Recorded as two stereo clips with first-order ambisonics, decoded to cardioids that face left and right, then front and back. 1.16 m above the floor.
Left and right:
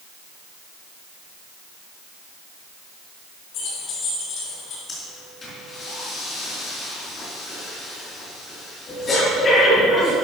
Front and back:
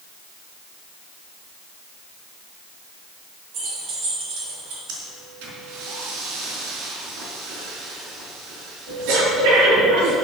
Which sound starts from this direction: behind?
Breathing, at 4.9 s.